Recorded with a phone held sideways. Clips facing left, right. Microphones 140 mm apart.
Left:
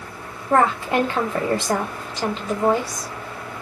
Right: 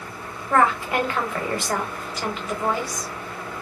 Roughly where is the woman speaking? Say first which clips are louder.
Left 2 dB; left.